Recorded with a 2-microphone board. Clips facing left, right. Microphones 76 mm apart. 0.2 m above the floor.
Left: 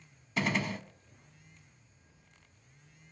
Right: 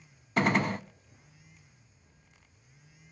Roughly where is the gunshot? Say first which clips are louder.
Right 5 dB; right.